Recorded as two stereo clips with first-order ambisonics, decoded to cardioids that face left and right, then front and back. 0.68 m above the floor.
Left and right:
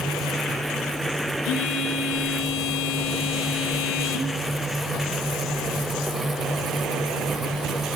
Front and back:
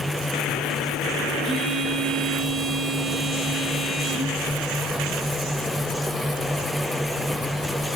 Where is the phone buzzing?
105° left, 1.5 m.